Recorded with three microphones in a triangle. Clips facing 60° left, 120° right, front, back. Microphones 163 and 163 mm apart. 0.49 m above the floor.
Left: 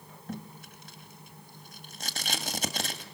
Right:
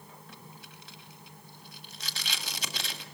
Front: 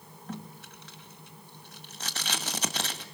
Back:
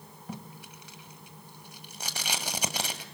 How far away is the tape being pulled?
About 1.7 m.